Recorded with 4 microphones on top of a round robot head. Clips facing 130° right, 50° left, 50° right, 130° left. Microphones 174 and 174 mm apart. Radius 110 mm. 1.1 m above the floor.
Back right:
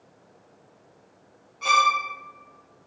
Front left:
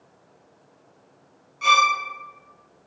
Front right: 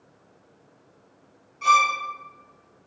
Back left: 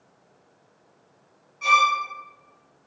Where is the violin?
40° left, 0.7 m.